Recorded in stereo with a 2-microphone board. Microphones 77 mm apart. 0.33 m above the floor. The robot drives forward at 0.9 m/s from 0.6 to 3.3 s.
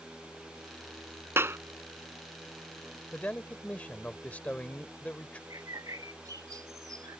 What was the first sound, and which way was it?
A clap, 30° right (ahead or behind).